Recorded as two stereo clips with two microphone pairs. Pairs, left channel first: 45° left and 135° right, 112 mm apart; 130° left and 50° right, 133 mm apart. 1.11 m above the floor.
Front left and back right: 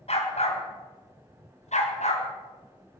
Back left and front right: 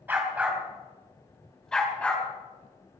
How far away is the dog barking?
About 3.5 m.